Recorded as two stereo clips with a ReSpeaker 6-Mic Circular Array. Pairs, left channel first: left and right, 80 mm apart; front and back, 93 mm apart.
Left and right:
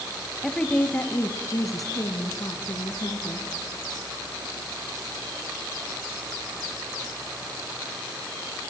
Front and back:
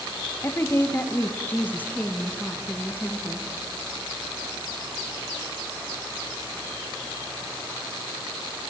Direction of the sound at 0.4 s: 10° left.